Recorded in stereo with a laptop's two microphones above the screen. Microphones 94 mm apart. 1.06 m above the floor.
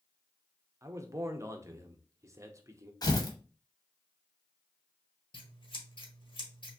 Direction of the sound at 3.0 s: 45° left (ahead or behind).